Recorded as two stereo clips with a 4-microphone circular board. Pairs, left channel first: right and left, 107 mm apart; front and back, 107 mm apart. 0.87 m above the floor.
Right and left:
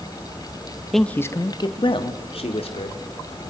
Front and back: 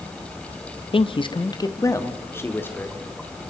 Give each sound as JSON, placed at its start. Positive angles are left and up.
{"t": 0.9, "sound": "a man speaking", "azimuth_deg": 0, "distance_m": 0.9}